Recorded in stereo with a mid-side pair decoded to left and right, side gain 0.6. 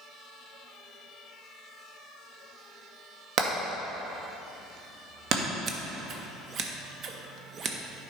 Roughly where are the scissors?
Ahead right.